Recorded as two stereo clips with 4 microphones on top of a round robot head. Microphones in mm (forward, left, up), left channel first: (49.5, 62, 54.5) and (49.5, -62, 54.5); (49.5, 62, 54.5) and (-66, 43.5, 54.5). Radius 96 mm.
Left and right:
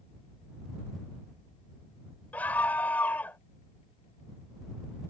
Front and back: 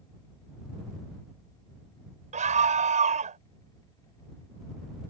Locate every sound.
2.3 s a scream: 170° left